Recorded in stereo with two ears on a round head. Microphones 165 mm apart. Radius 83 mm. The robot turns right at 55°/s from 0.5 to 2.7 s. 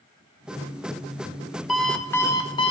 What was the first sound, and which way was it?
An alarm clock, 5° right.